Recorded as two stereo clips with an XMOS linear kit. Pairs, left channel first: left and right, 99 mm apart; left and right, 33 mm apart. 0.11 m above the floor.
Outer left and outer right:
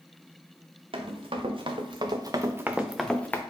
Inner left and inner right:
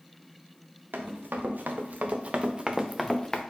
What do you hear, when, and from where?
0.9 s running footsteps: 75° right (ahead or behind), 1.2 m; by 3.4 s 20° left (ahead or behind), 0.6 m